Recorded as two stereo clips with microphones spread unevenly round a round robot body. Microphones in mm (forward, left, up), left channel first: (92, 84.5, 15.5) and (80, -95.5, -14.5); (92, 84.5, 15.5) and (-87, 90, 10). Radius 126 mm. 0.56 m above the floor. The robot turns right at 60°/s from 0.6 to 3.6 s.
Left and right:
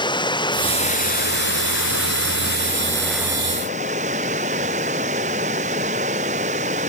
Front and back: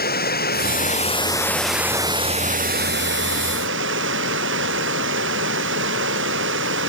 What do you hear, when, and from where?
0.0 s running water: 25° left; by 6.9 s 155° right